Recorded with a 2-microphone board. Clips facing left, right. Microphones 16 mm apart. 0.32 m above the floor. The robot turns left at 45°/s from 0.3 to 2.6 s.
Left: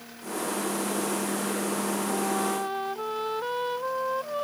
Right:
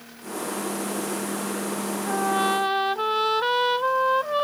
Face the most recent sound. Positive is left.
turn(degrees=-65)  # may be behind; listen again after turning